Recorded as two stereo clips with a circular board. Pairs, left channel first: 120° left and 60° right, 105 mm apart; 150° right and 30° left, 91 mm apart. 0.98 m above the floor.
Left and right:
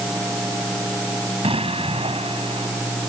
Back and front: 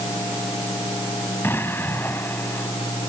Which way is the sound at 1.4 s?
85° right.